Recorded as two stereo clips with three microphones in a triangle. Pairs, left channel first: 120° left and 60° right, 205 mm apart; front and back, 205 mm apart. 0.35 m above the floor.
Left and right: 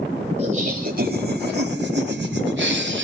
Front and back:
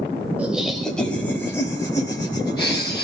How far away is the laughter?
About 1.1 m.